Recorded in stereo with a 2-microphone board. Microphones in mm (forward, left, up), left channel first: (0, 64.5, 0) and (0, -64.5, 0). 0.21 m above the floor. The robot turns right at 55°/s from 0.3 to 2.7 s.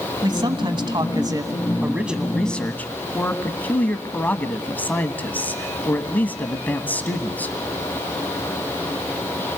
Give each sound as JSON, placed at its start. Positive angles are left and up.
{"t": 0.2, "sound": "a man speaking", "azimuth_deg": -110, "distance_m": 1.3}